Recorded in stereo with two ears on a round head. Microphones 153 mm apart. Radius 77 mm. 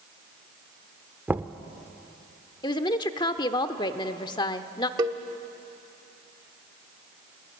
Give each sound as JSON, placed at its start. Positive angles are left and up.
{"t": 1.3, "sound": "knocking", "side_deg": -10, "distance_m": 0.7}
{"t": 2.6, "sound": "a woman speaking", "side_deg": 25, "distance_m": 0.9}
{"t": 5.0, "sound": "a cowbell", "side_deg": -25, "distance_m": 1.1}